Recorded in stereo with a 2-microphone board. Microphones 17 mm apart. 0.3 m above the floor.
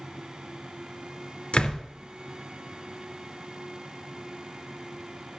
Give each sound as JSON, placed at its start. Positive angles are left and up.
{"t": 1.5, "sound": "a door slam", "side_deg": 75, "distance_m": 2.5}